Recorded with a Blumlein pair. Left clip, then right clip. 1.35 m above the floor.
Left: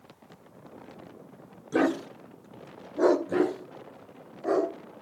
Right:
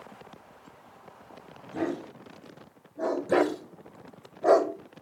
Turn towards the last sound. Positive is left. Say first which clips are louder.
# right 3 dB
turn(degrees=-65)